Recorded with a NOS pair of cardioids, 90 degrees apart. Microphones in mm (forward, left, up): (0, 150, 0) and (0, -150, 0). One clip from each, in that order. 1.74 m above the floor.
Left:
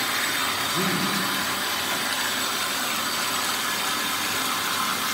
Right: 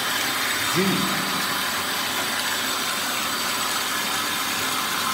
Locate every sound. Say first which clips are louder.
0.6 s a man speaking: right 2 dB; 35° right, 5 m